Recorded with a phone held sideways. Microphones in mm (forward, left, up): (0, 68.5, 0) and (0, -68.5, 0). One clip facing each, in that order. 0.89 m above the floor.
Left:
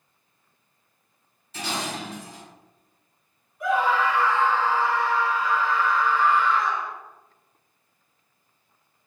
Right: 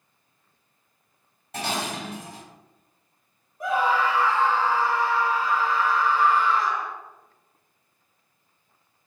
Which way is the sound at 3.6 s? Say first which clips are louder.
Left 1 dB; 40° right (ahead or behind).